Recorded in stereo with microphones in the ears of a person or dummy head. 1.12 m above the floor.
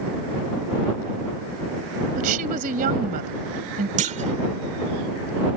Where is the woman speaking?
55° right (ahead or behind).